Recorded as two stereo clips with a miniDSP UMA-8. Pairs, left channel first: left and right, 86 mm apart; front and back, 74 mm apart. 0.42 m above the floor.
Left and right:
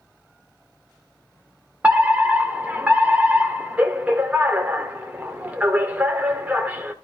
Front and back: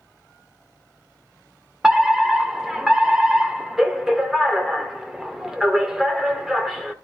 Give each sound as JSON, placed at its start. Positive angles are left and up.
{"t": 1.8, "sound": "a fire alarm", "azimuth_deg": -110, "distance_m": 1.7}